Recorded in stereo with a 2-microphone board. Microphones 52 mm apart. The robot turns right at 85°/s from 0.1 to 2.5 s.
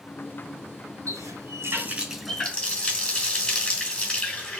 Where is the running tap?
100° right, 3 m; by 4.6 s 25° left, 3 m.